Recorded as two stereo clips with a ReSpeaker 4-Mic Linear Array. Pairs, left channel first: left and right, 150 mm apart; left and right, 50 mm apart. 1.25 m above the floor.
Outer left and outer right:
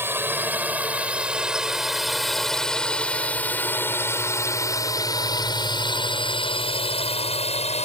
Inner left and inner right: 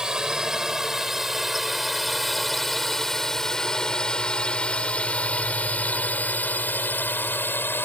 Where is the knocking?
No knocking in this recording.